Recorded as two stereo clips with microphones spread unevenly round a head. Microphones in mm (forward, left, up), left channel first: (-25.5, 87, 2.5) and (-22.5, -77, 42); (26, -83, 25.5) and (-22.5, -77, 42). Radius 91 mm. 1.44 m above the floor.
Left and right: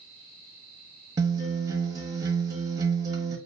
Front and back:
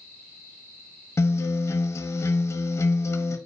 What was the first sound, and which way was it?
A guitar, 15° right.